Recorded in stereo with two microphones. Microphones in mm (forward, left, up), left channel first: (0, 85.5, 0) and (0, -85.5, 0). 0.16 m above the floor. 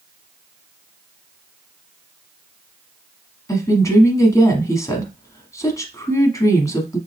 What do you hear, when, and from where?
3.5 s a woman speaking: 20° left (ahead or behind), 1.0 m